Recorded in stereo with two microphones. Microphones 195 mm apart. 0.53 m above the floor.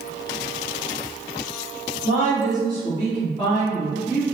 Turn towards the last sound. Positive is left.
turn(degrees=10)  # may be behind; listen again after turning